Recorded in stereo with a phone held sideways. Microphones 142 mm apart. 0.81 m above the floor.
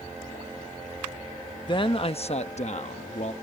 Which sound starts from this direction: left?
A man speaking, at 1.7 s.